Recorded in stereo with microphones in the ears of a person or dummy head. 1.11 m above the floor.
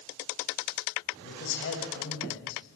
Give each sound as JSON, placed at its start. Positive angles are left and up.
{"t": 1.2, "sound": "a man speaking", "side_deg": 60, "distance_m": 6.0}